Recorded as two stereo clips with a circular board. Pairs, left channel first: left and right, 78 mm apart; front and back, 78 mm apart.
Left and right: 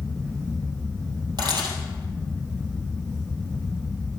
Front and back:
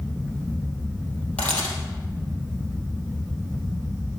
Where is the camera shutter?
75° right, 3 m.